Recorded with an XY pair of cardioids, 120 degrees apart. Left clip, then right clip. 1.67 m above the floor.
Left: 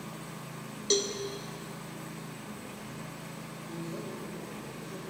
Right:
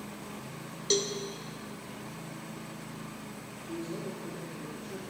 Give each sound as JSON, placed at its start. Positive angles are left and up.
{"t": 0.9, "sound": "a cowbell", "azimuth_deg": 0, "distance_m": 0.7}
{"t": 3.7, "sound": "a man speaking", "azimuth_deg": -30, "distance_m": 3.5}